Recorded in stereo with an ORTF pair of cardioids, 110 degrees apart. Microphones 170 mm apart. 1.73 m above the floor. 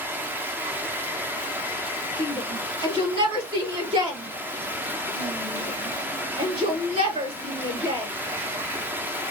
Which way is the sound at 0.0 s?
10° right.